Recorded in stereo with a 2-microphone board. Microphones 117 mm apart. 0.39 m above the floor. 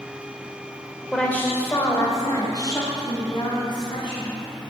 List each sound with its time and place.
1.1 s a woman speaking: 10° left (ahead or behind), 1.0 m; by 4.4 s 45° left (ahead or behind), 2.5 m